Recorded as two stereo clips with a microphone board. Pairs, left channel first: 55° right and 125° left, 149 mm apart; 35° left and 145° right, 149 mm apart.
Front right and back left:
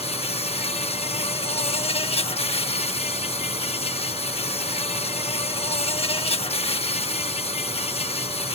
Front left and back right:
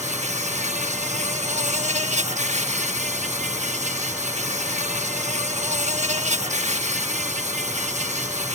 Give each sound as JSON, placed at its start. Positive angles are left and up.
{"t": 0.0, "sound": "an insect", "azimuth_deg": -105}